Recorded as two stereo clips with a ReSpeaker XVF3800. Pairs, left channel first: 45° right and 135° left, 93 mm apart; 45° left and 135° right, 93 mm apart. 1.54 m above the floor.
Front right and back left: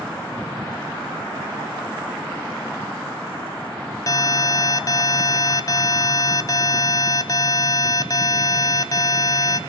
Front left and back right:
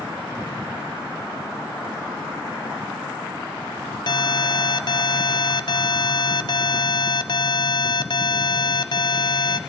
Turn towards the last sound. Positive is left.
turn(degrees=5)